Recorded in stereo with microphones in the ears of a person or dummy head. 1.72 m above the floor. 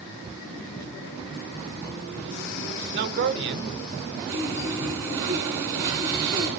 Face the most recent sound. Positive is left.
turn(degrees=-20)  # may be behind; listen again after turning